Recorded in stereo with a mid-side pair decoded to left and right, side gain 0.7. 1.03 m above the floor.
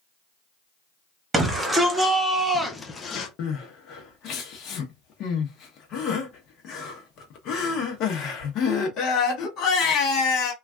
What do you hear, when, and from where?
1.3 s a shout: 15° right, 1.4 m; by 3.3 s 70° left, 0.5 m
3.4 s crying: 55° left, 0.9 m